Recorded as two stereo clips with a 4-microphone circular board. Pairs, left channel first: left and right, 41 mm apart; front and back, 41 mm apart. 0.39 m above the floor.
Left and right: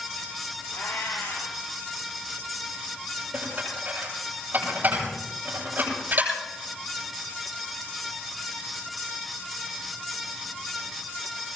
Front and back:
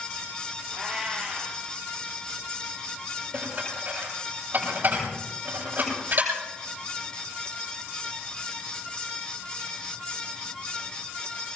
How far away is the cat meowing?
About 6 m.